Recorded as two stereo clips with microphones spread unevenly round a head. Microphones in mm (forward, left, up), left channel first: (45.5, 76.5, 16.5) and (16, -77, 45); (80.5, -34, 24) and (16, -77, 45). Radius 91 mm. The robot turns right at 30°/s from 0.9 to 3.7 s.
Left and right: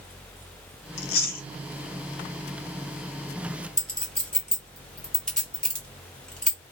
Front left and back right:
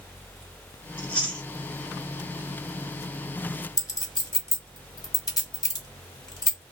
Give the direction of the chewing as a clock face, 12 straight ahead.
8 o'clock.